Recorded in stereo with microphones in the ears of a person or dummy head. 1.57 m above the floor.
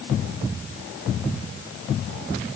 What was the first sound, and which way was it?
Only background noise.